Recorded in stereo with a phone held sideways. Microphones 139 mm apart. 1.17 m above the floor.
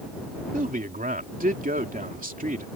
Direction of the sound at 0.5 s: 85° right.